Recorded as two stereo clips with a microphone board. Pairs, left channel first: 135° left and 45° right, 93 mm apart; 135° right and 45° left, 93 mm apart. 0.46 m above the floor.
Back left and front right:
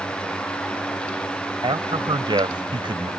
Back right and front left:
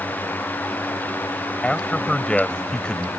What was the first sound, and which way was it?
A man speaking, 55° right.